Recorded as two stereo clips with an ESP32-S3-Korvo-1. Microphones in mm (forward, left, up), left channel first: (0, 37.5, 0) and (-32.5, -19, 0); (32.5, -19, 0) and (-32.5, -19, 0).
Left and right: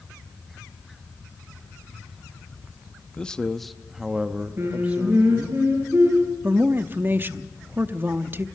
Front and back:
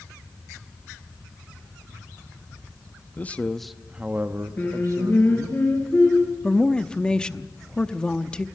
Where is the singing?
65° right, 4.5 m.